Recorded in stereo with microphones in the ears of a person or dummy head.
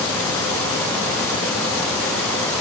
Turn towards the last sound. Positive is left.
No sound to turn to.